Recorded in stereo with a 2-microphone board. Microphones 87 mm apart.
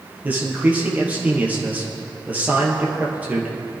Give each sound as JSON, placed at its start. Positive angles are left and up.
{"t": 0.2, "sound": "a man speaking", "side_deg": -20, "distance_m": 3.0}